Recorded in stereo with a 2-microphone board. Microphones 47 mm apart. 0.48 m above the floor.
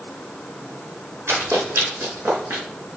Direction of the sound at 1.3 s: 75° right (ahead or behind).